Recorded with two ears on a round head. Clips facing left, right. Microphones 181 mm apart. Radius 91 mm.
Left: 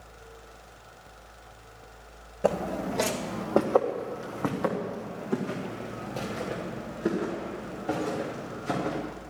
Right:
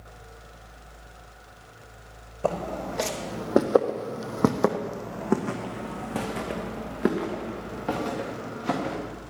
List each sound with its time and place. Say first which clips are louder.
2.4 s footsteps: left 1 dB; 15° left (ahead or behind), 2.0 m; by 8.9 s 75° right (ahead or behind), 5.5 m